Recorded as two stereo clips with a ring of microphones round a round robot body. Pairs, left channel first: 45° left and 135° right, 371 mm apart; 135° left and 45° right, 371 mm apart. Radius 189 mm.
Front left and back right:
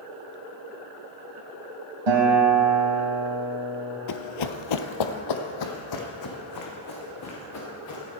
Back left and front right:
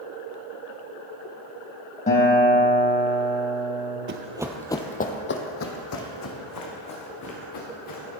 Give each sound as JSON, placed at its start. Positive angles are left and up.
{"t": 2.1, "sound": "a guitar", "azimuth_deg": -155, "distance_m": 4.0}
{"t": 4.1, "sound": "running footsteps", "azimuth_deg": 10, "distance_m": 0.8}